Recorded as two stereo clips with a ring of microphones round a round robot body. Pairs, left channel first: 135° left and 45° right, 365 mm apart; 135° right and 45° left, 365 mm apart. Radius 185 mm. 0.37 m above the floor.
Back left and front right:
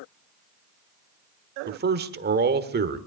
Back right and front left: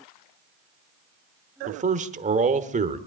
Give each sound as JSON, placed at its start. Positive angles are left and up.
{"t": 1.7, "sound": "a man speaking", "azimuth_deg": -10, "distance_m": 1.1}